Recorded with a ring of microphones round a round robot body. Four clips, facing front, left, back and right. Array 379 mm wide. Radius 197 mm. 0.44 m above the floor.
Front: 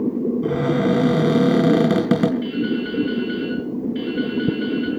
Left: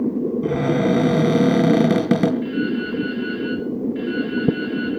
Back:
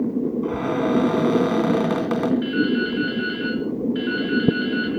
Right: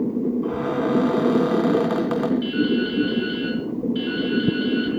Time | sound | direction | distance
0.4 | a cupboard door | 50° left | 3 m
2.4 | dripping | 110° right | 7.5 m